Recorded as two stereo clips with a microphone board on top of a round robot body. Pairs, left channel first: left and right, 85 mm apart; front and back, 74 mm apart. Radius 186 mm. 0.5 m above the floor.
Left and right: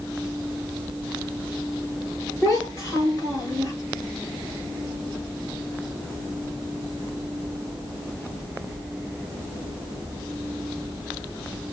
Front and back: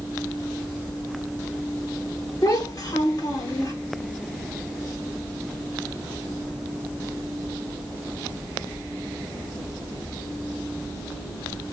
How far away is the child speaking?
About 2 m.